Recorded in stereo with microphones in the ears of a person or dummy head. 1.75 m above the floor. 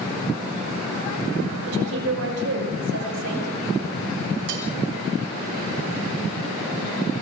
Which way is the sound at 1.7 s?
85° right.